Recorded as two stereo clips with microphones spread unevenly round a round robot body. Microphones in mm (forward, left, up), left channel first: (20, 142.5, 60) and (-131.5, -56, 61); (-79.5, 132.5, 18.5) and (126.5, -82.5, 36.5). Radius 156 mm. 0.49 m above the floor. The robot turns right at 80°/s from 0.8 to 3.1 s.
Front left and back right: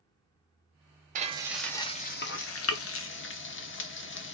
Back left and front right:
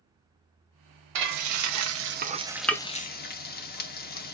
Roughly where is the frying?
Right.